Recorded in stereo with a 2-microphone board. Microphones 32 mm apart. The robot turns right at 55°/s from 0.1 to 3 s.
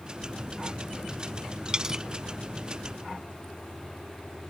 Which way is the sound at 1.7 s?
30° right (ahead or behind).